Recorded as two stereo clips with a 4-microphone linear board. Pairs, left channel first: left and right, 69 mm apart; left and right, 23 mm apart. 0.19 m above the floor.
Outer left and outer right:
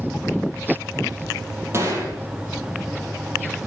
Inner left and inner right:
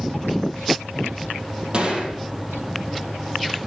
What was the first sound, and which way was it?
A gunshot, 40° right (ahead or behind).